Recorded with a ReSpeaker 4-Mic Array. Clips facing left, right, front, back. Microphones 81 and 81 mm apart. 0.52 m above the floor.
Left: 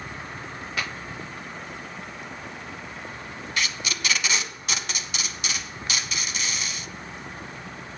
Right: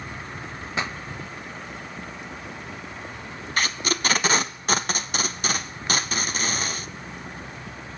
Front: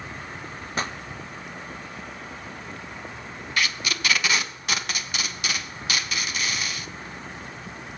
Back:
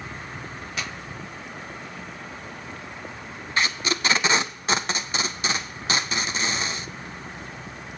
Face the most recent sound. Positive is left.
turn(degrees=-125)